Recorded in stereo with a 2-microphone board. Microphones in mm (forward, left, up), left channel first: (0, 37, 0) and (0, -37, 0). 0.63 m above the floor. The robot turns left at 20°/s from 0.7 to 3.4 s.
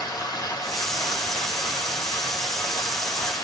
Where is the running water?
105° left, 1.7 m; by 3.5 s 50° left, 1.7 m.